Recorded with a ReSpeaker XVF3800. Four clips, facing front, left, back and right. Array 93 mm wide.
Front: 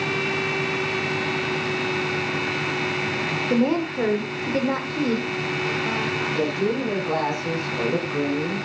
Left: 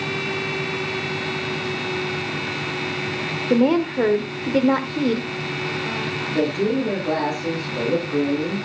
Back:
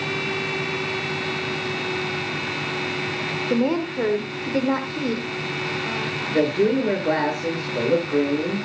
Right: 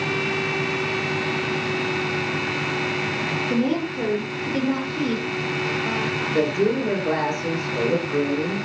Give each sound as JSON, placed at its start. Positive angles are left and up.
{"t": 3.5, "sound": "a woman speaking", "azimuth_deg": 90, "distance_m": 1.2}
{"t": 6.3, "sound": "a woman speaking", "azimuth_deg": -160, "distance_m": 8.5}